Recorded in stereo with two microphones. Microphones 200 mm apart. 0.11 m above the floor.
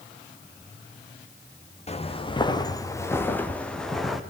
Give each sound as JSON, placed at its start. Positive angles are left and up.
{"t": 1.9, "sound": "footsteps", "side_deg": 30, "distance_m": 2.5}